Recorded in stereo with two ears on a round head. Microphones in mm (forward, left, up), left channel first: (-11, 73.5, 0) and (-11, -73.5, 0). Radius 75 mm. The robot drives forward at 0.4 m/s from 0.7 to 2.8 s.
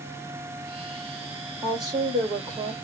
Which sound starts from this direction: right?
A woman speaking, at 1.6 s.